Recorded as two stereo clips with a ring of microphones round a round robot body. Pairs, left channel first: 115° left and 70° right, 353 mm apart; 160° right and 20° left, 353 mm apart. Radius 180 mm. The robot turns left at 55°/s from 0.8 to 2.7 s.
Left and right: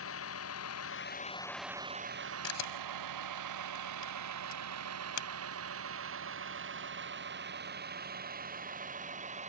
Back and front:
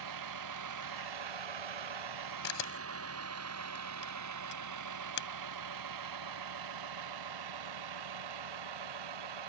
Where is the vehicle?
60° left; by 9.5 s 5° left.